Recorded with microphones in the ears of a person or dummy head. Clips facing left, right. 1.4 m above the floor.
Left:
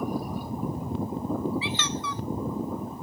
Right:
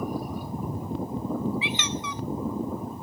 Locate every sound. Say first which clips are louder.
1.6 s a squeak: even; 20° right (ahead or behind), 0.5 m